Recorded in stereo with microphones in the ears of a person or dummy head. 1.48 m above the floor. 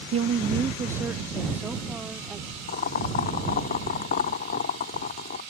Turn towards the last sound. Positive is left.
turn(degrees=45)  # may be behind; listen again after turning